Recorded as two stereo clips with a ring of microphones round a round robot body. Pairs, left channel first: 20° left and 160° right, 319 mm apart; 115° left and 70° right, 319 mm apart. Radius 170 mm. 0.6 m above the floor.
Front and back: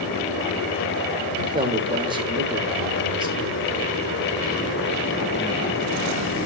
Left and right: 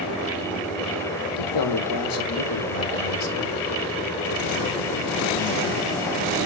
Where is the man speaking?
125° left, 1.9 m.